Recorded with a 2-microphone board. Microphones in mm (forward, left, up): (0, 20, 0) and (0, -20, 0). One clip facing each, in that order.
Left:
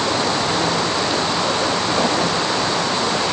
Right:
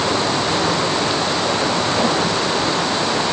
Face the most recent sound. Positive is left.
No sound to turn to.